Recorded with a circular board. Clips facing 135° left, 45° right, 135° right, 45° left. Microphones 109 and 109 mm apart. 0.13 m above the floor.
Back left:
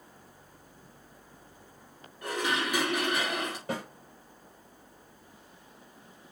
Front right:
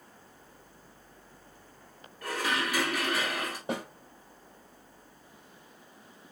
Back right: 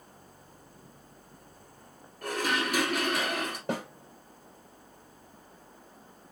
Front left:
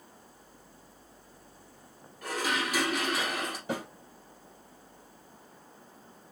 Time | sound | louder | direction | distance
2.2 | dishes clattering | back left 1 dB, back right 2 dB | 155° right | 1.4 m
3.7 | a snare drum | front right 2 dB, back right 2 dB | 110° right | 2.5 m